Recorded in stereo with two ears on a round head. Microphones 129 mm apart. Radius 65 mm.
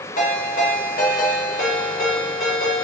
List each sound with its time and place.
0.2 s a ringtone: 60° left (ahead or behind), 1.8 m